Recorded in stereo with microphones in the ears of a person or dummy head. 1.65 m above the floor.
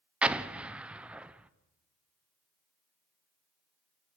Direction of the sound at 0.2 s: 5° right (ahead or behind).